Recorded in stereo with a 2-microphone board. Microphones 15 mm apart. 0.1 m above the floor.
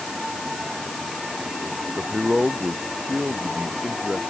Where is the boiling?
I don't hear boiling.